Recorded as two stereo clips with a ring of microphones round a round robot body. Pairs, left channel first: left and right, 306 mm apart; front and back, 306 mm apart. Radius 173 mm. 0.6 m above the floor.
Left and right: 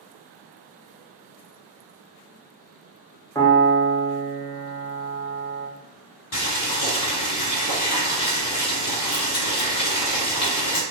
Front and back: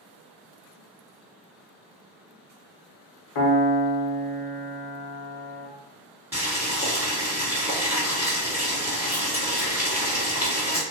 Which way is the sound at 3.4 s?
10° left.